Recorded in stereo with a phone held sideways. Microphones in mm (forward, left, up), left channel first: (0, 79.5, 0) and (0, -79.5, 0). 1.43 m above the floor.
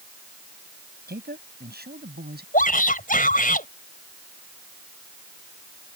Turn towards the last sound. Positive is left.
turn(degrees=60)  # may be behind; listen again after turning